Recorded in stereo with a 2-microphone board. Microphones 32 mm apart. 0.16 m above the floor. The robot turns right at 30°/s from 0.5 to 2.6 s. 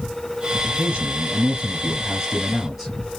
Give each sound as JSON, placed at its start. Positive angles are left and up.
{"t": 0.7, "sound": "a man speaking", "azimuth_deg": -55, "distance_m": 2.5}